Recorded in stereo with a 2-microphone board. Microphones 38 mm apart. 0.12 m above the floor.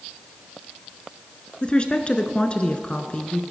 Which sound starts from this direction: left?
A woman speaking, at 1.6 s.